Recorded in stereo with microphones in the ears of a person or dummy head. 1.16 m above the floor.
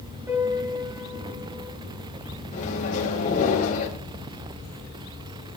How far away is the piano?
About 7 m.